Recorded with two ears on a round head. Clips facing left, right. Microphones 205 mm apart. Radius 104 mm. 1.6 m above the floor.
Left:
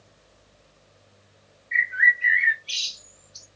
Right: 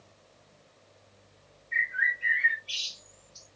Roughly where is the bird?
Left.